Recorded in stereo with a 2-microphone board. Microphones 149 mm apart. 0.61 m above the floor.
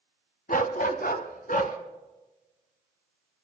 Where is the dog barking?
70° left (ahead or behind), 1.2 m.